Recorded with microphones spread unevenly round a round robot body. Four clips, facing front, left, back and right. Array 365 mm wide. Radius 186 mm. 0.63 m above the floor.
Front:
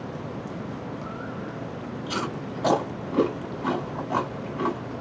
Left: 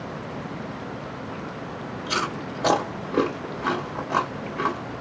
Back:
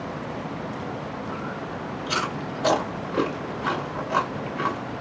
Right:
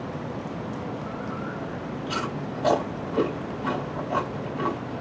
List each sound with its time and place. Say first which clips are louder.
2.1 s chewing: left 3 dB, back 2 dB; 90° left, 2.0 m